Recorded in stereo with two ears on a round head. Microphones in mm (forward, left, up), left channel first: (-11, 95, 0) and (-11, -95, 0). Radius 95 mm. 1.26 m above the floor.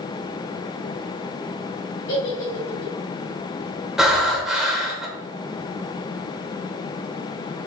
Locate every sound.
2.1 s a giggle: 45° left (ahead or behind), 2.5 m
4.0 s breathing: 5° right (ahead or behind), 1.0 m